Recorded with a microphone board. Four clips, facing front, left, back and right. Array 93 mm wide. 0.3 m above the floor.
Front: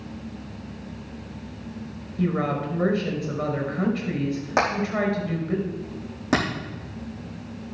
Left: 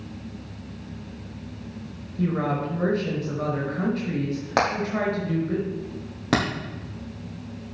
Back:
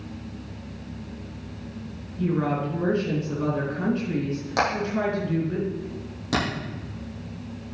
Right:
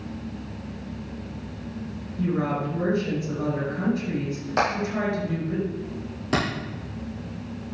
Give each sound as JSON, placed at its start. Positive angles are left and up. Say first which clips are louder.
{"t": 2.2, "sound": "a woman speaking", "louder": "even, even", "azimuth_deg": 35, "distance_m": 4.5}
{"t": 4.6, "sound": "hammering", "louder": "left 1 dB, front 1 dB", "azimuth_deg": 65, "distance_m": 5.5}